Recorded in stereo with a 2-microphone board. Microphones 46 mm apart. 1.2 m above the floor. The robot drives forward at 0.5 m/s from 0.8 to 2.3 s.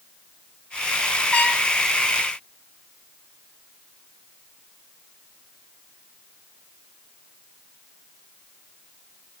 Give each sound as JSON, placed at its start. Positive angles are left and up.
{"t": 1.3, "sound": "a trumpet", "side_deg": 30, "distance_m": 1.3}